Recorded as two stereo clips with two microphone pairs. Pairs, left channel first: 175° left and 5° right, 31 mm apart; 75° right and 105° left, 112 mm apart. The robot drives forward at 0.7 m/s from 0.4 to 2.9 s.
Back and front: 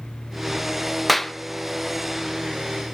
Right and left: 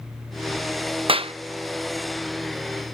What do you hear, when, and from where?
1.1 s a clap: 85° left, 0.9 m; by 1.3 s 95° left, 0.9 m